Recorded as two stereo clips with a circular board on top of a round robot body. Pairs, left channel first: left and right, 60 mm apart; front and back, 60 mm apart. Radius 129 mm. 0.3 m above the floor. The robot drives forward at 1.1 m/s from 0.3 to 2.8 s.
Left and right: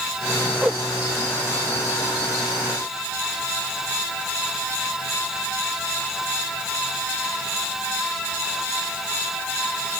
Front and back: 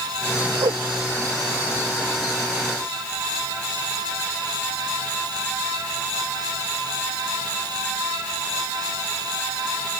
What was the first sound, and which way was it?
A whoosh, 170° right.